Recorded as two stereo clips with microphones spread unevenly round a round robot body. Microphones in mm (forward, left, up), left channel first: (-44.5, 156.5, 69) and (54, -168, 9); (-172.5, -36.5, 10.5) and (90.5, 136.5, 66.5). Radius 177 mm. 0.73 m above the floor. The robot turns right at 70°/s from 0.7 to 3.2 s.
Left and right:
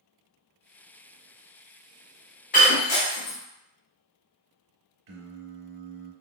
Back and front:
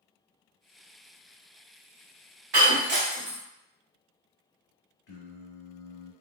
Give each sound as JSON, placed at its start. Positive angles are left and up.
{"t": 2.5, "sound": "breaking glass", "azimuth_deg": 40, "distance_m": 1.1}
{"t": 5.1, "sound": "singing", "azimuth_deg": -90, "distance_m": 0.7}